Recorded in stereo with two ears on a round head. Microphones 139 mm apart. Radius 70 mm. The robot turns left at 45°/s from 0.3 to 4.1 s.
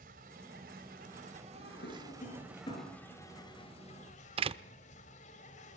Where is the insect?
70° right, 3.5 m; by 5.8 s 120° left, 3.5 m.